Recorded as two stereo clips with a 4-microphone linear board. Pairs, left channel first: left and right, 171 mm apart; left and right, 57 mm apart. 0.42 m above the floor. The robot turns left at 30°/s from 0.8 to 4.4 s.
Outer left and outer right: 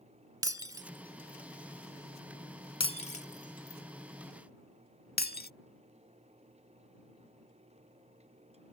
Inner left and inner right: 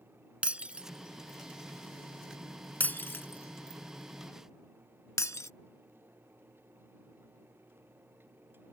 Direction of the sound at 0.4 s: 20° right (ahead or behind).